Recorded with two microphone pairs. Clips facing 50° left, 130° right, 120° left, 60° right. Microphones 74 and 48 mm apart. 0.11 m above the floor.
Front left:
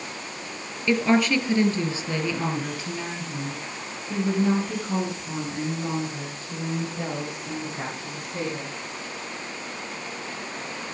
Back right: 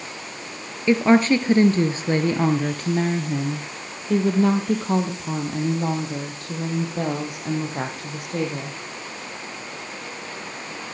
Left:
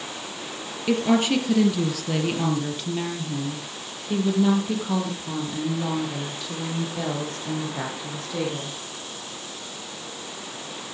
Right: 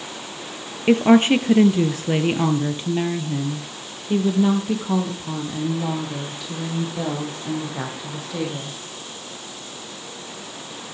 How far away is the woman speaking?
About 1.6 m.